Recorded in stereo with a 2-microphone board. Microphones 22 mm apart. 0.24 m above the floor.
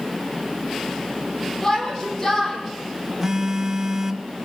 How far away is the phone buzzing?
About 1.6 m.